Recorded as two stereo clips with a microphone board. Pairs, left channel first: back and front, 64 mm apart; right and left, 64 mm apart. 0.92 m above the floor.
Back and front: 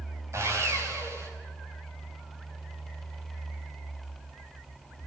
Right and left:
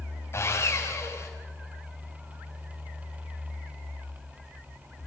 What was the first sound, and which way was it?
Sawing, 45° right.